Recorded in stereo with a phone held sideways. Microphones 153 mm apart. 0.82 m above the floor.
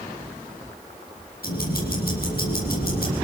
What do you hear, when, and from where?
1.4 s ticking: 75° left (ahead or behind), 7.5 m